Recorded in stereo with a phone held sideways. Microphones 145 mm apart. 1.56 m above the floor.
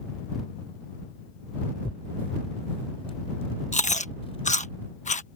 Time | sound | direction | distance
1.8 | tearing paper | 45° left (ahead or behind) | ?
3.7 | chewing | 60° left (ahead or behind) | ?